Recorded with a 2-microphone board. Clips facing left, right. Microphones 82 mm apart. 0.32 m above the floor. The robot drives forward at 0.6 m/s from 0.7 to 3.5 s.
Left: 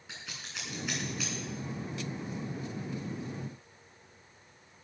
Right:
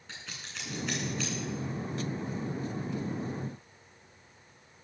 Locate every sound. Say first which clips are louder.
0.1 s scissors: even; 5° left (ahead or behind), 9 m